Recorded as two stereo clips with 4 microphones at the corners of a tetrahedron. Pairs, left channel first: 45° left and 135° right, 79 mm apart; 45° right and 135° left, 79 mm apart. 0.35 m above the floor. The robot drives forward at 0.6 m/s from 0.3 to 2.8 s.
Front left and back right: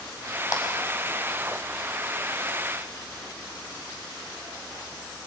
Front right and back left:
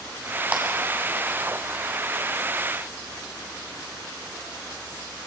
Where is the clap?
70° left, 2.5 m.